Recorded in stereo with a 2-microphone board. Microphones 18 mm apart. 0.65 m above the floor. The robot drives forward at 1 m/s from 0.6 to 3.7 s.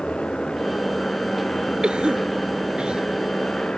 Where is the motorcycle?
65° left (ahead or behind); by 3.8 s 60° left (ahead or behind).